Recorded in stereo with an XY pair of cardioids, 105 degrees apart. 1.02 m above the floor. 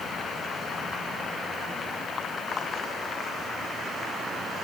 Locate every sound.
Only background noise.